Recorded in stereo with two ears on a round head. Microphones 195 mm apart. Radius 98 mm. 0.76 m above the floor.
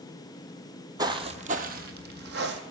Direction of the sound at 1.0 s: 20° right (ahead or behind).